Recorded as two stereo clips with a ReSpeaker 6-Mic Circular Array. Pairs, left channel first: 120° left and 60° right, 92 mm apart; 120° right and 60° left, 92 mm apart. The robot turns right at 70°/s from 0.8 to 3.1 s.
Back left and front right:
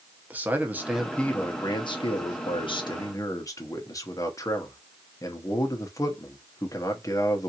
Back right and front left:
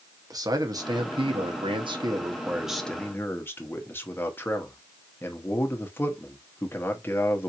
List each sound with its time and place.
0.3 s a man speaking: 10° left, 0.8 m; by 7.5 s 175° left, 0.8 m